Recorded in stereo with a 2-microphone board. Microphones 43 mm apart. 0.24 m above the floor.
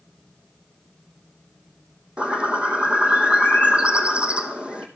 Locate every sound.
2.2 s a bird: 25° right (ahead or behind), 1.6 m